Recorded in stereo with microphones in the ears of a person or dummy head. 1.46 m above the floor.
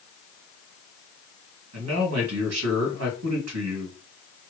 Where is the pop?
No pop in this recording.